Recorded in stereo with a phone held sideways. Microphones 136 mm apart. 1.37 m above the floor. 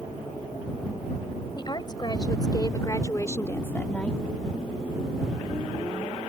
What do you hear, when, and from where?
1.6 s a woman speaking: 35° left (ahead or behind); by 4.2 s 5° left (ahead or behind)